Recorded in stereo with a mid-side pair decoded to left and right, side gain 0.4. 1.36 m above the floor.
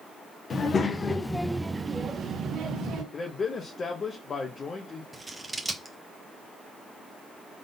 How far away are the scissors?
About 1.0 m.